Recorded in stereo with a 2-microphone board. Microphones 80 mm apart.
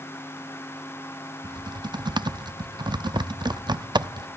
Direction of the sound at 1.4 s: 65° right (ahead or behind).